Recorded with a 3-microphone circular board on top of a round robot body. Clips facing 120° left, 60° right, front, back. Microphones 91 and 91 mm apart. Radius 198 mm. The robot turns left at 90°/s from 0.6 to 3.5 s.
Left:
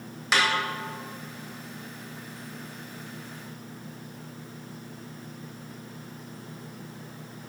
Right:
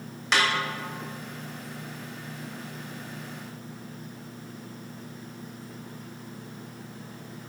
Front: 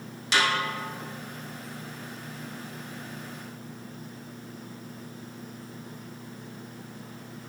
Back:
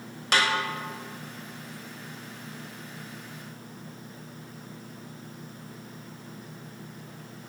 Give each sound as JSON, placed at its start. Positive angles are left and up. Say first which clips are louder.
{"t": 0.3, "sound": "a snare drum", "louder": "even, even", "azimuth_deg": -155, "distance_m": 3.5}